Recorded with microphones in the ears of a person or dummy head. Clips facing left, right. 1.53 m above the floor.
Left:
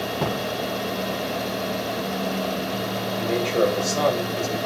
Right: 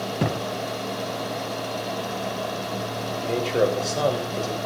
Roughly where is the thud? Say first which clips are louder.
Right 1 dB; right.